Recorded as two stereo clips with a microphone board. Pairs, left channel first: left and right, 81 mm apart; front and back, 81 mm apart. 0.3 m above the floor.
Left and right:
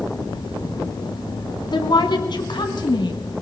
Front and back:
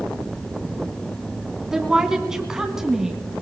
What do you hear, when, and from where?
1.7 s a woman speaking: 95° left, 2 m